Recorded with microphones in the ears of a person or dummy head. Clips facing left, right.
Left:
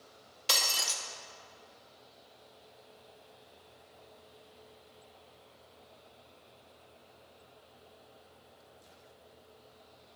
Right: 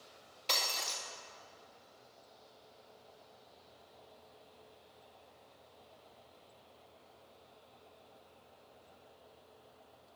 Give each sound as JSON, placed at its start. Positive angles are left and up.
{"t": 0.5, "sound": "breaking glass", "side_deg": 5, "distance_m": 1.1}